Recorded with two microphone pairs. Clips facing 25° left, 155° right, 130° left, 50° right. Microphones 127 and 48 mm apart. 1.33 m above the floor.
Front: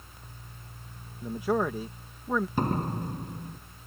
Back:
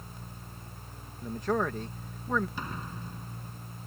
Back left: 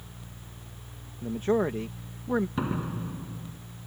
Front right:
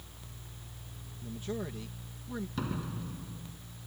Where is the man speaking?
105° left.